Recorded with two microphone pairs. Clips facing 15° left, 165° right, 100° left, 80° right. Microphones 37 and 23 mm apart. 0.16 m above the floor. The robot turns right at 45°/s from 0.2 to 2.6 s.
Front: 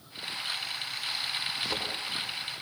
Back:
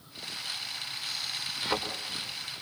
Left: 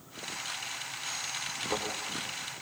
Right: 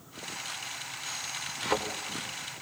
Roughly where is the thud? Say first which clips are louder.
Back 5 dB, right 5 dB; right.